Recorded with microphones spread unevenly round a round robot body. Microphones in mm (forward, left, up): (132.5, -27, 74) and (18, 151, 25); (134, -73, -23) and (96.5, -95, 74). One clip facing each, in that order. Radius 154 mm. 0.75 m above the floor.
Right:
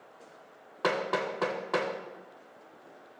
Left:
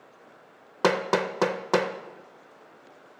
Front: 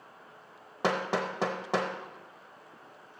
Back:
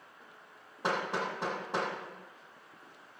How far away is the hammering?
About 0.6 m.